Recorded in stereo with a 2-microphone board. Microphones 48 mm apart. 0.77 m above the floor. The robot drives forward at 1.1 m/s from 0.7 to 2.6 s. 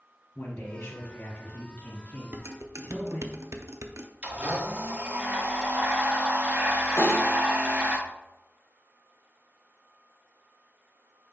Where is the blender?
30° right (ahead or behind), 1.4 m.